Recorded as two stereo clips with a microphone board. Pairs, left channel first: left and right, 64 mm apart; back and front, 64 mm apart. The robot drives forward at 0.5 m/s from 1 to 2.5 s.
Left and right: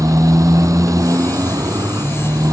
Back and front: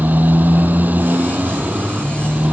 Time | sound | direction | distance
0.0 | a motorcycle | 60° right | ?